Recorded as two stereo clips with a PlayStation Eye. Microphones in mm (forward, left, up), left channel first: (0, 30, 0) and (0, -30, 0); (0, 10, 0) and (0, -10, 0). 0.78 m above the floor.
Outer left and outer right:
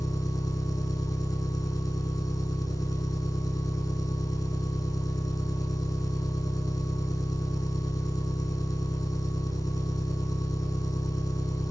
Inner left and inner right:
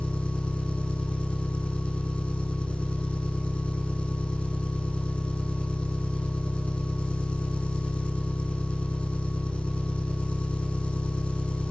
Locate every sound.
0.0 s an engine running: 80° left, 9 m